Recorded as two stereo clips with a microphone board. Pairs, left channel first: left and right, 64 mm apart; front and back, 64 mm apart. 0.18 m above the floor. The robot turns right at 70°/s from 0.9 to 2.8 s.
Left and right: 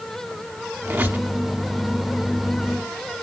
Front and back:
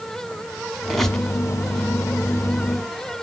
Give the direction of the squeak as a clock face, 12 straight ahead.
3 o'clock.